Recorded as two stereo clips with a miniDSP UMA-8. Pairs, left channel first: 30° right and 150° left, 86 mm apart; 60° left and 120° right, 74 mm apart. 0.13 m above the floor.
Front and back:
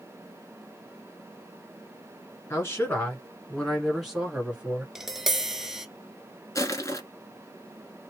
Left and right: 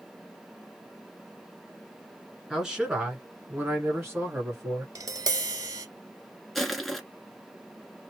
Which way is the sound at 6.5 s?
25° right.